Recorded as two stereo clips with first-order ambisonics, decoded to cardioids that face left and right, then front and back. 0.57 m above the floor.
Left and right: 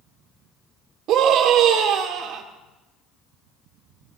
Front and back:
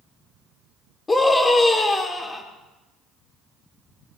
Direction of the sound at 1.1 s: 75° right.